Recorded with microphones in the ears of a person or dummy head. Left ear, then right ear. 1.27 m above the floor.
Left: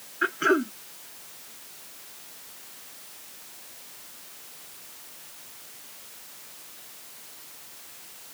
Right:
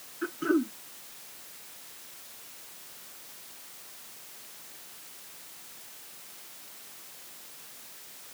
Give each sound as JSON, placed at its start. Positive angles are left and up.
{"t": 0.2, "sound": "throat clearing", "side_deg": 45}